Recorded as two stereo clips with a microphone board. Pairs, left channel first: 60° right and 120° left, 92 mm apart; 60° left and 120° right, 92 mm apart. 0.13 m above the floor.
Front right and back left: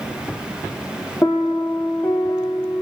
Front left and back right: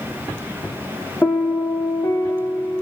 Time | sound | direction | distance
1.2 | a piano | 5° right | 0.7 m